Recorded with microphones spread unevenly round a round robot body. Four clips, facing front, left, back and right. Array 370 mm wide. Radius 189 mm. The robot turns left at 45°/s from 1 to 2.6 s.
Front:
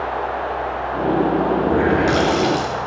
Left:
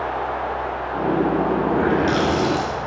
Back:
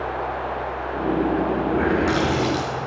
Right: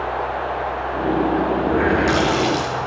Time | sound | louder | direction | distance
1.6 | a running tap | right 1 dB, front 4 dB | 5° right | 4.5 m